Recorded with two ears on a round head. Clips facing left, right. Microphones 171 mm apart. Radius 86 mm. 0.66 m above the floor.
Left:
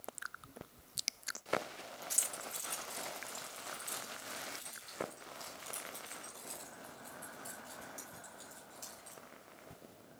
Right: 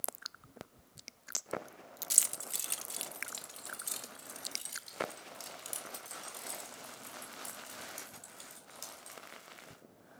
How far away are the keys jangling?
About 0.6 m.